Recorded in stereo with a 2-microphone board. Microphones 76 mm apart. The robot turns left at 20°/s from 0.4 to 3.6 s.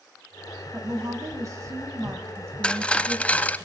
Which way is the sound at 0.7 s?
90° right.